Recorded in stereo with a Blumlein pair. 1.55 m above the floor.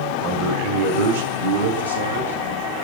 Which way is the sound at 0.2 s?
30° right.